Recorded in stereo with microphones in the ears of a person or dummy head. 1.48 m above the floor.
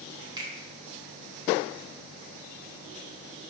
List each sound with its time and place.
0.4 s a finger snap: 25° right (ahead or behind), 0.9 m